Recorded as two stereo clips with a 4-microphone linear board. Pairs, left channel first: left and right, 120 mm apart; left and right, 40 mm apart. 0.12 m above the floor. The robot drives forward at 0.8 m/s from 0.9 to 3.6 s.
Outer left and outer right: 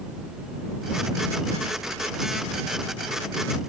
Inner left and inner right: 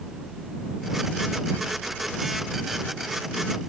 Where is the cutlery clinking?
No cutlery clinking in this recording.